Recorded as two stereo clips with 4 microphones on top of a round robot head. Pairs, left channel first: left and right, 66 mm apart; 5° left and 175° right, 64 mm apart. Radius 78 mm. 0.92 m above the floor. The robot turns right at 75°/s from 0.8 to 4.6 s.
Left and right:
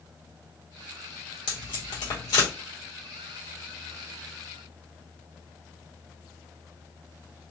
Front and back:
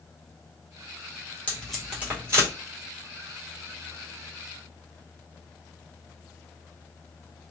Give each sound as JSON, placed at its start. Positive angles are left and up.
{"t": 1.5, "sound": "tape being pulled", "azimuth_deg": 75, "distance_m": 1.7}